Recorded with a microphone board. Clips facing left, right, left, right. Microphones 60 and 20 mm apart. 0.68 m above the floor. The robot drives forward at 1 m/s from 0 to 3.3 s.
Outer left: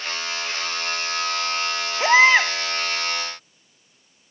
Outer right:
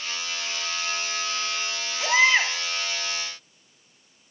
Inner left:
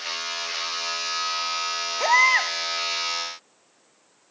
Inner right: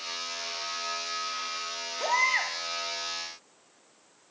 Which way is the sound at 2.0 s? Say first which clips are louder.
Outer left 5 dB, inner left 7 dB; 40° left (ahead or behind).